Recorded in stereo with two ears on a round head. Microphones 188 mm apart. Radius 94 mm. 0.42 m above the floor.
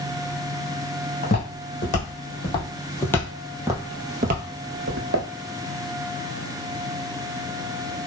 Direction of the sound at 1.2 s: 40° left (ahead or behind).